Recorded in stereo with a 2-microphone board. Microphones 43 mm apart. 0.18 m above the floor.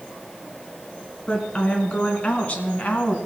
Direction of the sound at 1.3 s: 25° left (ahead or behind).